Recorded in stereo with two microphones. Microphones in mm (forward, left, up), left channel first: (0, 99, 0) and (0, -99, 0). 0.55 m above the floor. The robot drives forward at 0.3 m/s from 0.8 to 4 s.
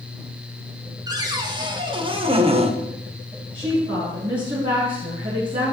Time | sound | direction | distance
1.1 | a cupboard door | 20° right (ahead or behind) | 1.2 m
3.5 | a woman speaking | 45° right (ahead or behind) | 5 m